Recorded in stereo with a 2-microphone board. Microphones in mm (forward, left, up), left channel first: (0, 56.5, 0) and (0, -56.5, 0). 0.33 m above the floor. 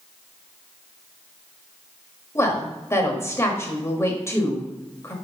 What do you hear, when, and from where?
2.4 s a woman speaking: 25° left (ahead or behind), 1.1 m